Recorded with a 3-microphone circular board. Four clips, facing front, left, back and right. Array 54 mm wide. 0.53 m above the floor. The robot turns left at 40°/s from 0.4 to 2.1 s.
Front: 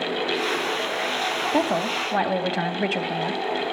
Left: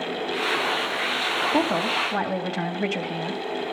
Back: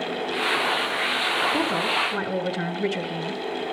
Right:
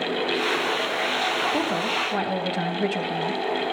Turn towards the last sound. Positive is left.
turn(degrees=10)